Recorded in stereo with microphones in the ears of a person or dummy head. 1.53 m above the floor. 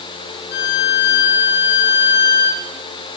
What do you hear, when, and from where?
0.5 s a violin: 60° left (ahead or behind), 2 m